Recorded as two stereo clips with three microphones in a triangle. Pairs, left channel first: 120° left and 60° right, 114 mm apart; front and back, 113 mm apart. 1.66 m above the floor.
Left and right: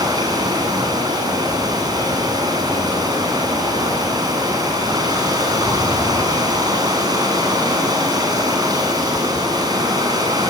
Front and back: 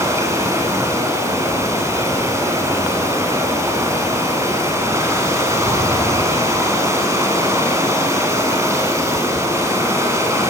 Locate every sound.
0.0 s running water: 115° right, 8.5 m